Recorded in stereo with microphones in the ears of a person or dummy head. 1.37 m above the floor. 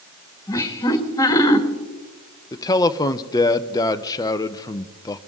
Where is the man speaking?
15° left (ahead or behind), 0.6 m.